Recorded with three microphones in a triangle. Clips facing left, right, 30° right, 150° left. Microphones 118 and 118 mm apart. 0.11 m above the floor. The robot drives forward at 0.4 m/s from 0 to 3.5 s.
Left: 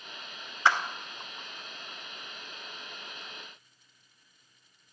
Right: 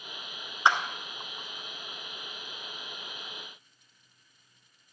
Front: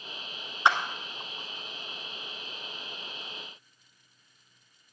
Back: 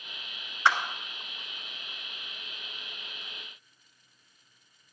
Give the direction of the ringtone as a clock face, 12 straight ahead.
I don't hear a ringtone.